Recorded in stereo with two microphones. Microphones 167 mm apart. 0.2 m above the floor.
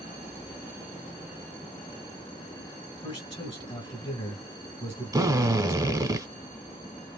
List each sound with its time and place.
3.0 s a man speaking: 35° left (ahead or behind), 1.4 m
5.1 s a drill: 25° right (ahead or behind), 0.7 m